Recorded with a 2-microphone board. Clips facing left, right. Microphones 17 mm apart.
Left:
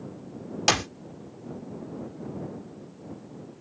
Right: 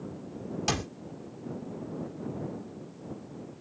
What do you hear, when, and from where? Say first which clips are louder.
0.7 s a clap: left 8 dB; 40° left (ahead or behind)